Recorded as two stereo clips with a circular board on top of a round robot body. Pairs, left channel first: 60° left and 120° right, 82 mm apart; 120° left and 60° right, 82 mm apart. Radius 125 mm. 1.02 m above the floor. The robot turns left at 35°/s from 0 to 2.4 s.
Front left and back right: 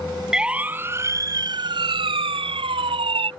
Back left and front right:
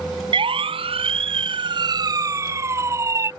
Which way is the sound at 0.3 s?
35° right.